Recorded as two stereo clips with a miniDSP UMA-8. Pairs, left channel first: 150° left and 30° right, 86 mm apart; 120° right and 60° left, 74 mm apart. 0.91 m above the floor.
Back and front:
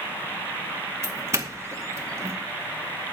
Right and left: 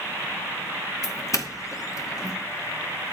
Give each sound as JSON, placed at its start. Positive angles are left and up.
{"t": 1.0, "sound": "a doorbell", "azimuth_deg": -80, "distance_m": 2.0}